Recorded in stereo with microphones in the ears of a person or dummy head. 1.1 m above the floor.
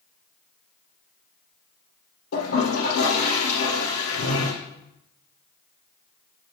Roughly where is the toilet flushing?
Left.